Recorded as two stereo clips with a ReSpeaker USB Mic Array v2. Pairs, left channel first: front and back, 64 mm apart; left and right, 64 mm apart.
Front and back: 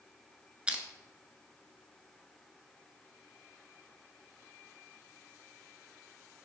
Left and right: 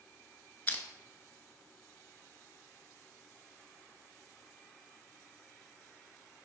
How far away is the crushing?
About 0.7 m.